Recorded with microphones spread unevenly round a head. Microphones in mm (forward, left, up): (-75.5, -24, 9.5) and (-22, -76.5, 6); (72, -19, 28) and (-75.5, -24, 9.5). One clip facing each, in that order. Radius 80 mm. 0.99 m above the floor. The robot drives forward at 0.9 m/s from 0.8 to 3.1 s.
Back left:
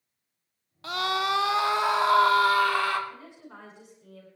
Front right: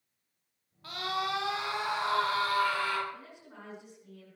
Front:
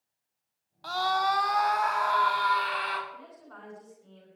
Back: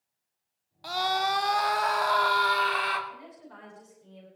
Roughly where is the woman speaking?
Behind left.